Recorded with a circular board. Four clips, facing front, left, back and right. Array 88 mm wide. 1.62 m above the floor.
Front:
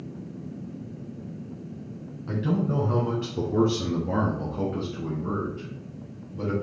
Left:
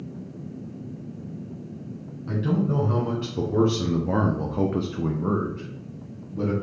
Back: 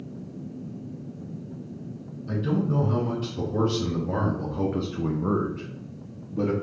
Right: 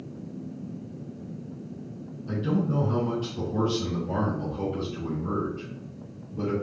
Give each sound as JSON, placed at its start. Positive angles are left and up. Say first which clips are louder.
{"t": 2.3, "sound": "a man speaking", "louder": "left 2 dB, even", "azimuth_deg": 40, "distance_m": 1.5}